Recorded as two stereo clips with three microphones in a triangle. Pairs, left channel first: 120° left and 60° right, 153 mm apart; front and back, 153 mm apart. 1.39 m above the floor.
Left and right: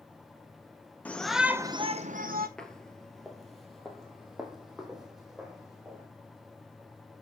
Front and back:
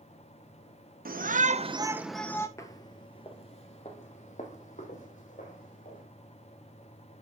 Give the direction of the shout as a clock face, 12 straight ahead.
5 o'clock.